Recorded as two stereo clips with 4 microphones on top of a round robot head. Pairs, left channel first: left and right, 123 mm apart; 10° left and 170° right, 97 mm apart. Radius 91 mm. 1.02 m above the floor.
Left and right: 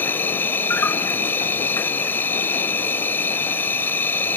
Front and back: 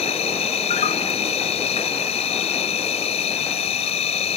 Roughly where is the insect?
Ahead.